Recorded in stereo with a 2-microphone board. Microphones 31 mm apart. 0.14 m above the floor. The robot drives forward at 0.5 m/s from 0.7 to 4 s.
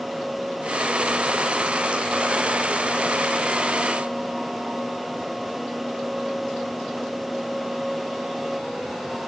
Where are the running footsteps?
No running footsteps in this recording.